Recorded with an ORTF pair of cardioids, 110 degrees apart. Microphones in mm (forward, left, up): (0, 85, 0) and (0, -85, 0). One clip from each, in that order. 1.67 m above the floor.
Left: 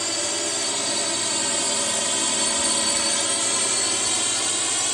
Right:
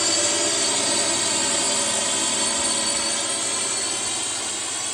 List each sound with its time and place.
0.0 s a drone: 25° right; by 5.0 s 25° left